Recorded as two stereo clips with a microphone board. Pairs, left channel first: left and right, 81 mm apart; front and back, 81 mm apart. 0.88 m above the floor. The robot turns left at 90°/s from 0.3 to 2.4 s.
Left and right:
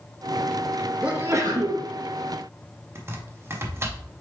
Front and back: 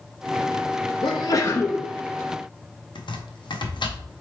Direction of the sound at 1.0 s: 15° right.